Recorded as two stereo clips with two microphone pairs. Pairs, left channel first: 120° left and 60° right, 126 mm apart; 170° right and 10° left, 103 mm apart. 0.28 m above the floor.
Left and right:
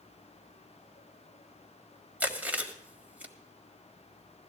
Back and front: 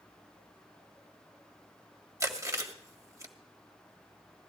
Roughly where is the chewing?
Ahead.